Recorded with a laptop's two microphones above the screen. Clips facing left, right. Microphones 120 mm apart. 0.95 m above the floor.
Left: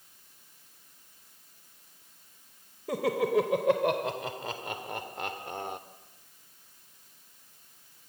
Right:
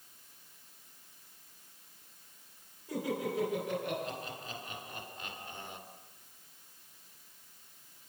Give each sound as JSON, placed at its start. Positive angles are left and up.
{"t": 2.9, "sound": "laughter", "side_deg": 80, "distance_m": 3.5}